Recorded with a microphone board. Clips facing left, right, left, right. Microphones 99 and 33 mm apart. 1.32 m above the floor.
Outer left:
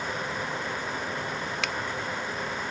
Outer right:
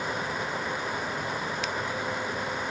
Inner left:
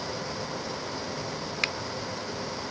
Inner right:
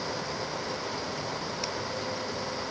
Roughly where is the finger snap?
Left.